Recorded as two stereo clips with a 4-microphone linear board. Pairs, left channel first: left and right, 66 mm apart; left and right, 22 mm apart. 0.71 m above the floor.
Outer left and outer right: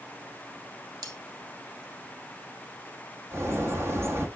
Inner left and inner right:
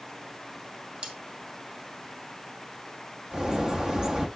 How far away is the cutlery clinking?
About 1.5 m.